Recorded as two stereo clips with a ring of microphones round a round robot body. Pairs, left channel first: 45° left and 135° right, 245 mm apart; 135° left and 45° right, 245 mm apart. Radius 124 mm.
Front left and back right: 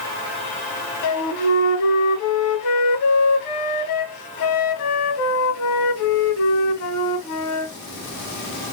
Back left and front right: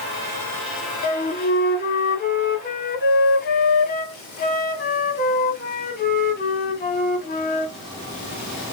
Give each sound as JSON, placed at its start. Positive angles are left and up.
{"t": 1.0, "sound": "a flute", "azimuth_deg": 80, "distance_m": 0.6}